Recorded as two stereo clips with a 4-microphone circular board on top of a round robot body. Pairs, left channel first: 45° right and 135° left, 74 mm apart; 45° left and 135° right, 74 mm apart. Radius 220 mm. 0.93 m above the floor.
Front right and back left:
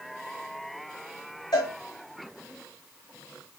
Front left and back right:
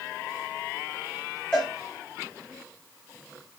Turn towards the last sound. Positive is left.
turn(degrees=-30)